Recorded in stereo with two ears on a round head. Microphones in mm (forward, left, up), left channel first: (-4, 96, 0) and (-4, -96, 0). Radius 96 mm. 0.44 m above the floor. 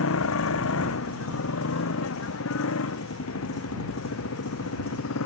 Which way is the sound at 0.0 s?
75° left (ahead or behind).